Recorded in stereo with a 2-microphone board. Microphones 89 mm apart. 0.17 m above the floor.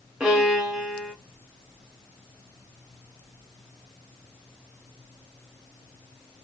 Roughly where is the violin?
Centre.